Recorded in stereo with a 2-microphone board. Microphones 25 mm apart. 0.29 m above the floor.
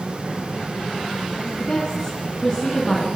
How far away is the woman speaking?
About 3 m.